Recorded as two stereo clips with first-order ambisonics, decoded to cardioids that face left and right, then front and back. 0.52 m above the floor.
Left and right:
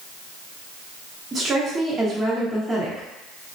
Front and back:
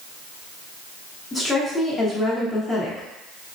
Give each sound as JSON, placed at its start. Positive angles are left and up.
{"t": 1.3, "sound": "a woman speaking", "azimuth_deg": -50, "distance_m": 0.7}